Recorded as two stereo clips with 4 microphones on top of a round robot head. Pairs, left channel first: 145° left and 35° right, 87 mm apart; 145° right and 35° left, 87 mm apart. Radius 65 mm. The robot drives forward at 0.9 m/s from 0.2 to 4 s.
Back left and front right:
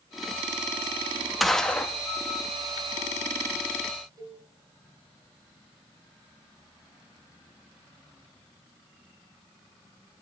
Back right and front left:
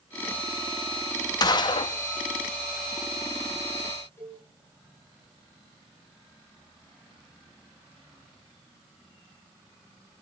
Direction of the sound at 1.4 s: 125° right.